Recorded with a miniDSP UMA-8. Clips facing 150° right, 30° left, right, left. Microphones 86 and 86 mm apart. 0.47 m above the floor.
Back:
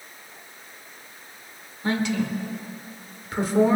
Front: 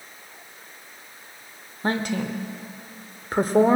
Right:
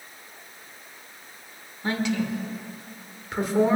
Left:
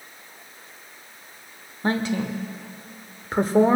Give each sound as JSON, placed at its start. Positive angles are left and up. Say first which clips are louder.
{"t": 1.8, "sound": "a woman speaking", "louder": "back 1 dB, left 2 dB", "azimuth_deg": 55, "distance_m": 1.2}